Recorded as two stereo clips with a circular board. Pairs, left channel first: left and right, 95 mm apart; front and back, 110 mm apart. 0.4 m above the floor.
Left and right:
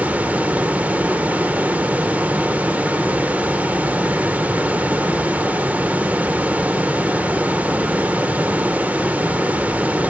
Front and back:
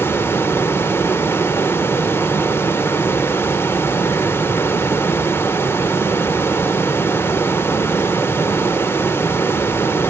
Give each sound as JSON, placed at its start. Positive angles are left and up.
{"t": 0.0, "sound": "running water", "azimuth_deg": -35, "distance_m": 0.8}